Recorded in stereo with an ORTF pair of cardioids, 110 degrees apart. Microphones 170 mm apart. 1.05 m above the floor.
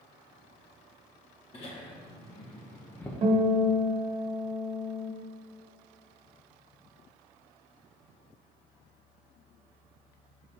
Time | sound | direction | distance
1.5 | laughter | 35° left | 1.9 m
3.2 | a guitar | 40° right | 1.4 m